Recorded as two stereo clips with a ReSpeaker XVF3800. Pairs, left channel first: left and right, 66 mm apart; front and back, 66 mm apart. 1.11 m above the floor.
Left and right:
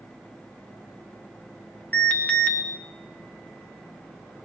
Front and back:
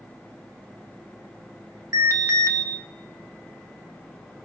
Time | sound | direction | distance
1.9 | an alarm | 155° left | 3 m